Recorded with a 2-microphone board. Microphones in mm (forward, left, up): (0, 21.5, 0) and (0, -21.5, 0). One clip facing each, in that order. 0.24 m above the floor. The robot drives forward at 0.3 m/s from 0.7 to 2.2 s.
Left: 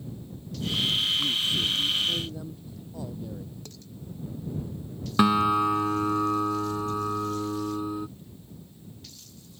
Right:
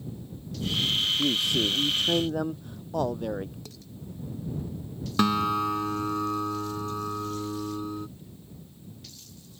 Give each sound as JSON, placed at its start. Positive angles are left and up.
{"t": 1.2, "sound": "a man speaking", "side_deg": -65}
{"t": 3.6, "sound": "dishes clattering", "side_deg": -5}
{"t": 5.2, "sound": "a guitar", "side_deg": 10}